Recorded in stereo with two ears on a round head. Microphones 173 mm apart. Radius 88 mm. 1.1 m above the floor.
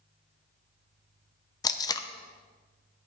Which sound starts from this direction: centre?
Tape being pulled, at 1.6 s.